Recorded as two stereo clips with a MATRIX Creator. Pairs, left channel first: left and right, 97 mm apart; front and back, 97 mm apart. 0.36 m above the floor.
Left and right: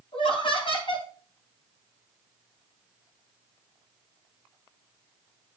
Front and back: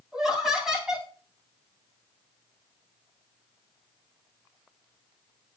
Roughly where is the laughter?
Left.